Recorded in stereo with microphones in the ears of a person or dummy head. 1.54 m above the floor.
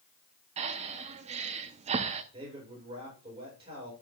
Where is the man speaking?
30° right (ahead or behind), 6.5 m.